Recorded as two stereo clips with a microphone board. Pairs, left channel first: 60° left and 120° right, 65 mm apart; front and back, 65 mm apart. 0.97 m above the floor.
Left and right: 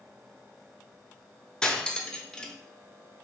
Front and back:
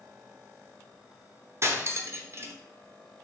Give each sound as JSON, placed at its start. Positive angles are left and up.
{"t": 1.6, "sound": "cutlery clinking", "azimuth_deg": 140, "distance_m": 0.6}